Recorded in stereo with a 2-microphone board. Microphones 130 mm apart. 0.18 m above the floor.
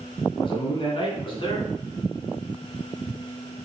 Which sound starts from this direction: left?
A man speaking, at 0.3 s.